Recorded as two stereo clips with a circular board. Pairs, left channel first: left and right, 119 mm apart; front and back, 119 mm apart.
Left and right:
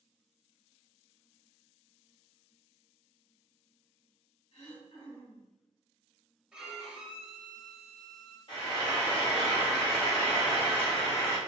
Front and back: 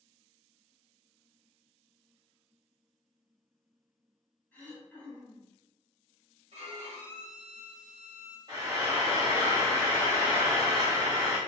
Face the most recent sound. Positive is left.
turn(degrees=125)